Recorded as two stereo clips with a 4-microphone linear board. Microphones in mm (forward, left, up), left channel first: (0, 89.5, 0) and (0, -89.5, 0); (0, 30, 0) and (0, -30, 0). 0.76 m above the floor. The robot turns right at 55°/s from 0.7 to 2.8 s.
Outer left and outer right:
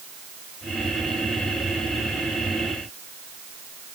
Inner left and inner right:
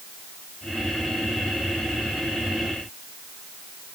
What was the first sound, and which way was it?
Only background noise.